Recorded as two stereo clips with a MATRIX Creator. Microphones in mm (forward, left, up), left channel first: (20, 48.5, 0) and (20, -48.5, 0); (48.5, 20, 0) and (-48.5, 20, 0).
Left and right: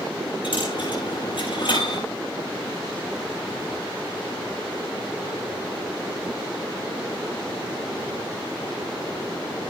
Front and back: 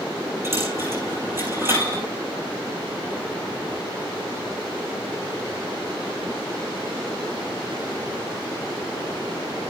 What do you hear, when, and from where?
0.4 s a dropped coin: 115° left, 6 m